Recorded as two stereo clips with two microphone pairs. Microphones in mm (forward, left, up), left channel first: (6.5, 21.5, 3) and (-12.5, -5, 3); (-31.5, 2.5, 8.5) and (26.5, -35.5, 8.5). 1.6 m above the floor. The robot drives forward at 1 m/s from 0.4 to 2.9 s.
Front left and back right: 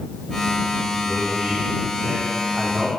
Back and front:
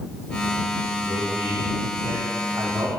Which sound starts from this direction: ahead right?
A man speaking, at 1.0 s.